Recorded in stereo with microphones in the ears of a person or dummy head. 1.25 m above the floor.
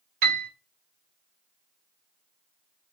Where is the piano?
50° right (ahead or behind), 1.0 m.